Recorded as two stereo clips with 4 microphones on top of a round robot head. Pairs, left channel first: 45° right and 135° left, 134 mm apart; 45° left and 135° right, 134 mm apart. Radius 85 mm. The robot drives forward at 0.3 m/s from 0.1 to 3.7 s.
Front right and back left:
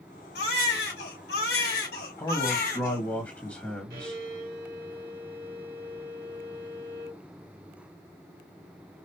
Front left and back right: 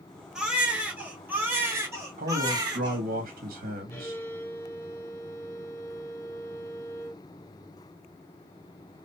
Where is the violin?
120° left, 1.1 m.